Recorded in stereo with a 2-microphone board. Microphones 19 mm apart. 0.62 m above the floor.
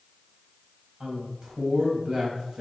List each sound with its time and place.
1.0 s a woman speaking: 45° right (ahead or behind), 4 m